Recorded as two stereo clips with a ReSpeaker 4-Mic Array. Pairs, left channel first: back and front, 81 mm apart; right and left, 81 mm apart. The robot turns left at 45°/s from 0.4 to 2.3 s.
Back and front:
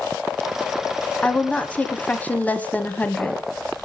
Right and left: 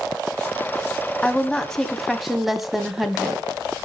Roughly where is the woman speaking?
Behind right.